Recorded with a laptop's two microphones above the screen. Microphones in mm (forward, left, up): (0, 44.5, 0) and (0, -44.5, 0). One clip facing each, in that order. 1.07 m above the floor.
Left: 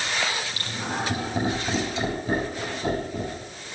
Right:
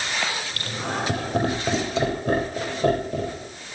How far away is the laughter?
About 5.5 m.